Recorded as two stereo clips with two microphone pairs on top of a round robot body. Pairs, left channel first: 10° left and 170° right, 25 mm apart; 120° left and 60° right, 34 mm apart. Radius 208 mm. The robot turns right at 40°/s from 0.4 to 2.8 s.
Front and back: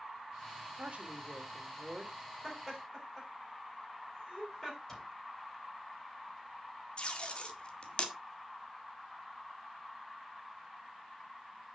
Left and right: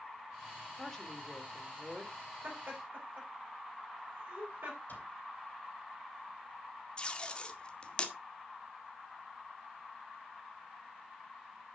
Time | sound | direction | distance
0.8 | a woman speaking | 170° right | 2.5 m
2.4 | laughter | 70° right | 5.5 m
4.9 | a cupboard door | 85° left | 4 m
7.0 | tape being pulled | 55° left | 2 m